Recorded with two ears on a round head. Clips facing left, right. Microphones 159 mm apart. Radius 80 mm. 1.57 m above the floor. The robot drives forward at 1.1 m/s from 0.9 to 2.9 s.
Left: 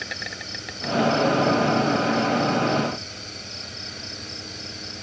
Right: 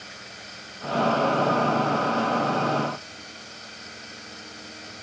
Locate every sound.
0.0 s an insect: 90° left; by 5.0 s 85° left